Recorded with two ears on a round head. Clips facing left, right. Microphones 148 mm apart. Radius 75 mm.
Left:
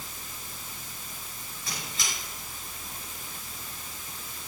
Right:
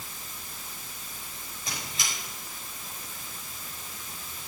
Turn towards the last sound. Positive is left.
turn(degrees=-20)  # may be behind; listen again after turning